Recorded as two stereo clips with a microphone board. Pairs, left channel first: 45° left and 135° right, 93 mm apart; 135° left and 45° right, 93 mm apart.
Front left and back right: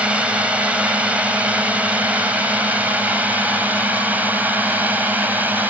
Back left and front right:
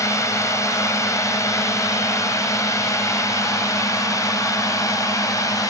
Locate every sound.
0.0 s a drone: 155° left; by 5.7 s 165° left